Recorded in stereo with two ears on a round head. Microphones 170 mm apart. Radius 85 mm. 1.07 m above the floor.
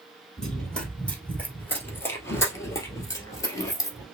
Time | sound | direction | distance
0.4 | running footsteps | 5° left (ahead or behind) | 1.6 m